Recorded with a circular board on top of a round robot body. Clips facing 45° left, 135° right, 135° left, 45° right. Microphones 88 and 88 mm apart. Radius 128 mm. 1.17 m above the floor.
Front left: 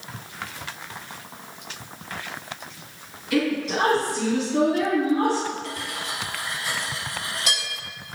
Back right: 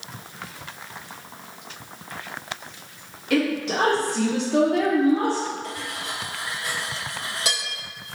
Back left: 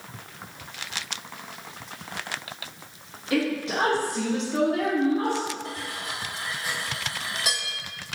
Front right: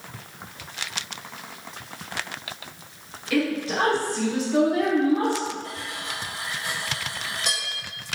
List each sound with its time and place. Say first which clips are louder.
3.3 s a woman speaking: back right 1 dB, front right 1 dB; 165° right, 1.4 m; by 5.5 s 50° right, 0.7 m
5.6 s cutlery clinking: even, even; 145° right, 1.7 m